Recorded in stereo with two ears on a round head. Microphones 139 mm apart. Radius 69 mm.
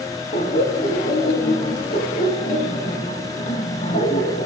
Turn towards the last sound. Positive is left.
turn(degrees=45)  # may be behind; listen again after turning